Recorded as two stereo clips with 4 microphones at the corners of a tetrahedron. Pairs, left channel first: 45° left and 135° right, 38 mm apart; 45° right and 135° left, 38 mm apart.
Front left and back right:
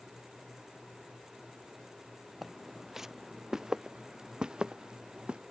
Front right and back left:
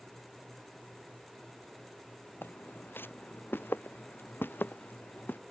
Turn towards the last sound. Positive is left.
turn(degrees=-70)